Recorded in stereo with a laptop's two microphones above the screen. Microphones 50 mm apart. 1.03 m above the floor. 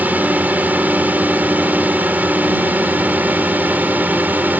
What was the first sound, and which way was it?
A drone, 35° right (ahead or behind).